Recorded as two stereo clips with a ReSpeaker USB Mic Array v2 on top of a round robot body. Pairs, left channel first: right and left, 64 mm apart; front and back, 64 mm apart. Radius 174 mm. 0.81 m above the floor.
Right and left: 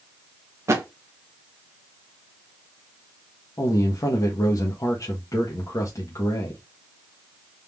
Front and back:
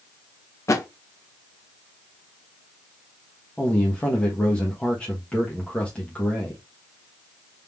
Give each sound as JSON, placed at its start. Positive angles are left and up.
{"t": 0.7, "sound": "a thud", "azimuth_deg": 40, "distance_m": 0.8}
{"t": 3.6, "sound": "a man speaking", "azimuth_deg": -75, "distance_m": 1.5}